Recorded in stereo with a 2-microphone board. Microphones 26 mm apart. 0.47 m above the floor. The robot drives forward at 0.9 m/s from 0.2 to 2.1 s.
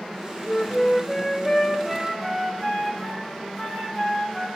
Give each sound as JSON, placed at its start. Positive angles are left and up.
{"t": 0.5, "sound": "a flute", "side_deg": 30, "distance_m": 0.7}